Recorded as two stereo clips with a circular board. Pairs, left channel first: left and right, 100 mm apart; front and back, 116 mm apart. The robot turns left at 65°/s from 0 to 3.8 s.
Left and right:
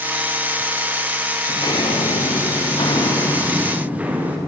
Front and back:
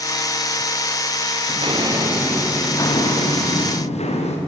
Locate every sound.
1.5 s footsteps: 150° left, 4.5 m; by 4.4 s 15° right, 5.5 m